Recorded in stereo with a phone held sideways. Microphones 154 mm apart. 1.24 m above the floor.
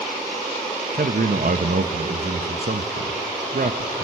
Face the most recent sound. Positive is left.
turn(degrees=-70)  # may be behind; listen again after turning